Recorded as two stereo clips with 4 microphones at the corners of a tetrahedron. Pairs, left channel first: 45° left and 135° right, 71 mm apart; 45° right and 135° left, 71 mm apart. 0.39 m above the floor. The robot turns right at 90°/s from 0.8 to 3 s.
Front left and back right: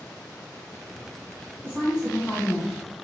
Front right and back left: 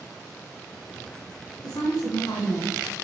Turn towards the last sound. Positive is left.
turn(degrees=50)